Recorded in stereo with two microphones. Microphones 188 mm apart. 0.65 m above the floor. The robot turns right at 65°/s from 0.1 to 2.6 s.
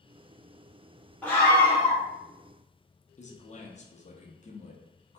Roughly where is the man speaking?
Left.